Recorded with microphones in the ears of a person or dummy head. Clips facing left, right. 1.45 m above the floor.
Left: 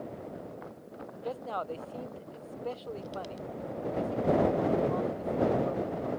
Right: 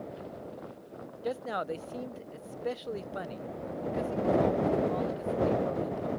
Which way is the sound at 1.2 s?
20° right (ahead or behind).